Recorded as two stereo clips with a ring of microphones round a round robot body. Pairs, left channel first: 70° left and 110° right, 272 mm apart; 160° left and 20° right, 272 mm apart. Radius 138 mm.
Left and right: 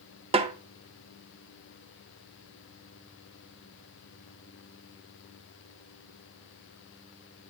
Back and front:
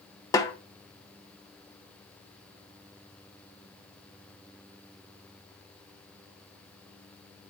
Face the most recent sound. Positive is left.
turn(degrees=-145)